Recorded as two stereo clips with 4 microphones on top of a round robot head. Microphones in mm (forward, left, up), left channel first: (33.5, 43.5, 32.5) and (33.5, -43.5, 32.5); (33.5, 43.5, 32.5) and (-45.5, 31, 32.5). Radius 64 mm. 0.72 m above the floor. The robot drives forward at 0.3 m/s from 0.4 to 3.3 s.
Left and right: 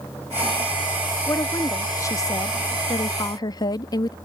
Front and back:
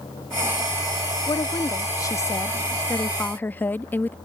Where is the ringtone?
No ringtone in this recording.